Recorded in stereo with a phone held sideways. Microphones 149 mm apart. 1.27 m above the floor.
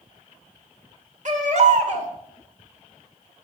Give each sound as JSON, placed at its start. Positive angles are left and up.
{"t": 1.2, "sound": "a baby crying", "side_deg": -55, "distance_m": 1.4}